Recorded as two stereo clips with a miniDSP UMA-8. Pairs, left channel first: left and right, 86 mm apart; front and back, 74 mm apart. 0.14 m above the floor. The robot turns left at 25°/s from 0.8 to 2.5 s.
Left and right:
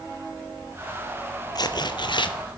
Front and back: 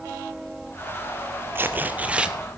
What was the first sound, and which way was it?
Tearing paper, 125° left.